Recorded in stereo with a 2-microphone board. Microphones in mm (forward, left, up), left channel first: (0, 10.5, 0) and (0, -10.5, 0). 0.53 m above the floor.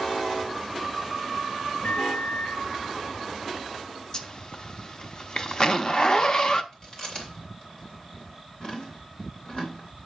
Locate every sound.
1.8 s a microwave: 50° left (ahead or behind), 1.9 m
4.1 s a zipper: 35° left (ahead or behind), 0.6 m
6.7 s chewing: 30° left (ahead or behind), 2.5 m